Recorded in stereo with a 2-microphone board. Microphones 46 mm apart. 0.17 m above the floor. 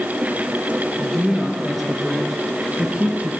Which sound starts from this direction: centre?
A woman speaking, at 1.0 s.